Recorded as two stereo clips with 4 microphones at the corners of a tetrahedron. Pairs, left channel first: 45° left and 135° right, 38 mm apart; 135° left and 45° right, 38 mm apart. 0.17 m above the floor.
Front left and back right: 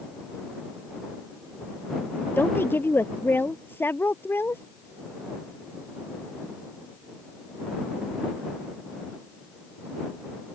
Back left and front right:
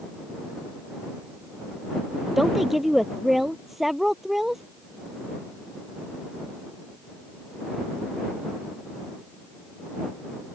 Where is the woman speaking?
40° left.